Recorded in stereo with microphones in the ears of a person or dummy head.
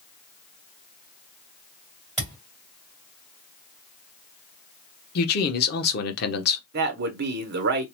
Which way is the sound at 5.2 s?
55° left (ahead or behind).